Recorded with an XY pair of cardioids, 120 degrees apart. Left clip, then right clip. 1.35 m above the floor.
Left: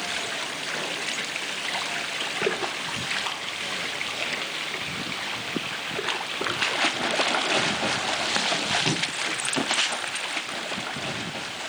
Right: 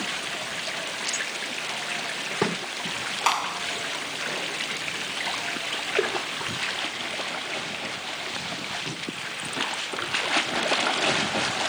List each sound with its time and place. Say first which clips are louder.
3.3 s a clap: right 6 dB; 60° right